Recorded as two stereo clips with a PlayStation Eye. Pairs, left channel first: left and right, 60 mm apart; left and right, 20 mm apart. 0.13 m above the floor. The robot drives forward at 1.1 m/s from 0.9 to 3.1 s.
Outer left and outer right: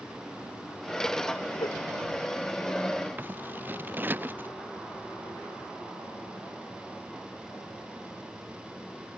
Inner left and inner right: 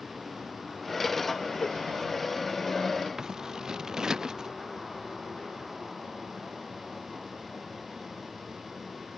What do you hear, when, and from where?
1.6 s a whoosh: 85° left
3.2 s scissors: 35° right (ahead or behind)